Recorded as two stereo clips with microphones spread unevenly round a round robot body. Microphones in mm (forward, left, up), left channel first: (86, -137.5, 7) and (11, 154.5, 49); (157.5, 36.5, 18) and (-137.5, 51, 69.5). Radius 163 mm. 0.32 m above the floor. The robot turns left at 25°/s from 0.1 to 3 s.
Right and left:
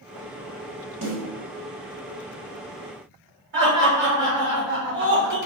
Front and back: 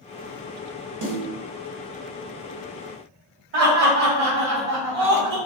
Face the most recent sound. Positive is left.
turn(degrees=145)